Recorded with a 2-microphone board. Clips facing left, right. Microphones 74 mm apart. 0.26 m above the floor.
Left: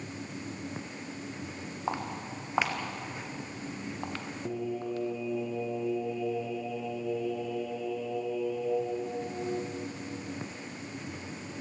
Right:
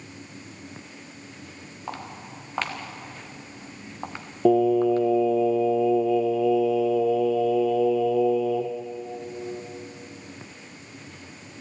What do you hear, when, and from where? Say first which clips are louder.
1.9 s footsteps: left 2 dB; 15° left (ahead or behind), 3.5 m; by 5.1 s 45° right (ahead or behind), 1.9 m
4.5 s singing: right 17 dB; 85° right, 1.8 m